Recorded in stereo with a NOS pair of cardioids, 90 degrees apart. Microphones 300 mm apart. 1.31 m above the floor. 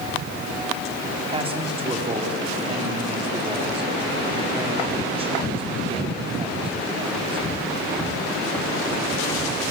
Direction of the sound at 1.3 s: 20° right.